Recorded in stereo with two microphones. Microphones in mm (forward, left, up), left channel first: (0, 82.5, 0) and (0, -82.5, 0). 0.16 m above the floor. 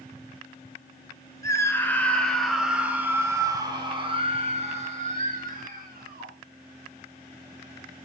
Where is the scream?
20° left (ahead or behind), 1.8 m; by 6.3 s 60° right (ahead or behind), 2.5 m.